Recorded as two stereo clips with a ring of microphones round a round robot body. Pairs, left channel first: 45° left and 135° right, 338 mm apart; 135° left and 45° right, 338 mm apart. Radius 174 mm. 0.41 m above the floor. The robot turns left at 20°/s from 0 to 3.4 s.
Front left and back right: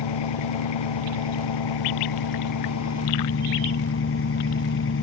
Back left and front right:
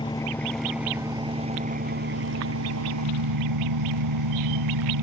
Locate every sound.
0.0 s an engine running: 55° left; by 5.0 s 10° right